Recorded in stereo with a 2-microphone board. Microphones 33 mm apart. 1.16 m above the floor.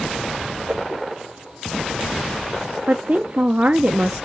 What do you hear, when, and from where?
0.7 s a whoosh: 45° right (ahead or behind), 2 m
2.9 s a woman speaking: 50° right (ahead or behind), 0.7 m